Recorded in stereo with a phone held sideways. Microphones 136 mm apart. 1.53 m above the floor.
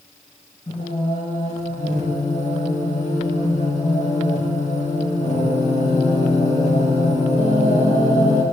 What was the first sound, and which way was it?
Singing, 60° left (ahead or behind).